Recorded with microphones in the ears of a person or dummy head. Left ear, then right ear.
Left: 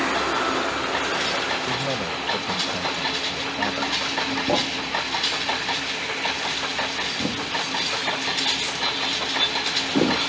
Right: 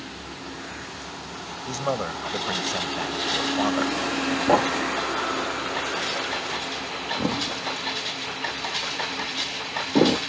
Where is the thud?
50° right (ahead or behind).